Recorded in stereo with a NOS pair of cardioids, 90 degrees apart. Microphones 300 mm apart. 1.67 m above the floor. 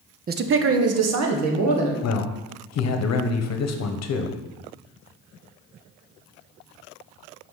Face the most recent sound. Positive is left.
turn(degrees=55)